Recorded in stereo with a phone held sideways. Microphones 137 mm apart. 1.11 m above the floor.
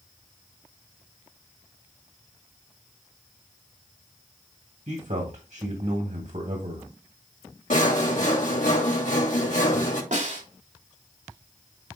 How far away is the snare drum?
About 3 m.